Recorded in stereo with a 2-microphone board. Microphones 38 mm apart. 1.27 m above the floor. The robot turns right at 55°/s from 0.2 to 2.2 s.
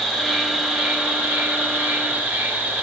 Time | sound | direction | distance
0.0 | an insect | 175° left | 3 m